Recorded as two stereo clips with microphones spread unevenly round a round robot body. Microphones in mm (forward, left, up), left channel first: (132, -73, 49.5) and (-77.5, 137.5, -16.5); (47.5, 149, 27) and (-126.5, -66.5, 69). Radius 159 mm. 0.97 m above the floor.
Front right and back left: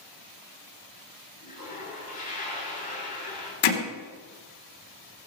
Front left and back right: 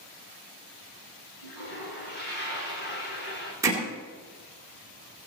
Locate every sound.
1.4 s a toilet flushing: 20° left, 7 m
3.6 s hammering: 45° right, 2.5 m